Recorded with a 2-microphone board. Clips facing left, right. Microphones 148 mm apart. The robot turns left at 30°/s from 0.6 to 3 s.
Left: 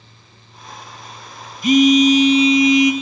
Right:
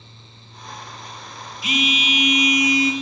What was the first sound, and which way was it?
A phone buzzing, 60° left.